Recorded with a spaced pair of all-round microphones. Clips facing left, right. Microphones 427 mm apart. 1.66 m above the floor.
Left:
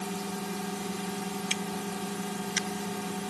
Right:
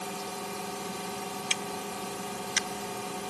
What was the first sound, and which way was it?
A drone, 35° left (ahead or behind).